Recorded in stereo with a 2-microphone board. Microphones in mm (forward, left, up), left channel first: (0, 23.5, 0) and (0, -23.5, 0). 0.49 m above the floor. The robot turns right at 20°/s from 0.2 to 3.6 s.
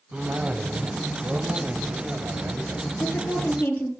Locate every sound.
0.1 s a cough: 155° right, 3 m; by 2.8 s 105° right, 3 m
3.0 s a woman speaking: 40° left (ahead or behind), 8.5 m; by 3.9 s 30° left (ahead or behind), 8.5 m